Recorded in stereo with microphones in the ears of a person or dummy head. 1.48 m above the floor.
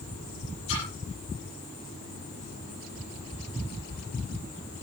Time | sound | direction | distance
0.7 | a splash | 65° left (ahead or behind) | 8 m